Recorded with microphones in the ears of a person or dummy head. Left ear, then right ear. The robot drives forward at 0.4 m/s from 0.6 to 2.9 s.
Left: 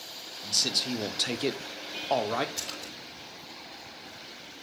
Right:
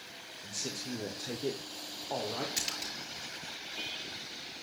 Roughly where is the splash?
Right.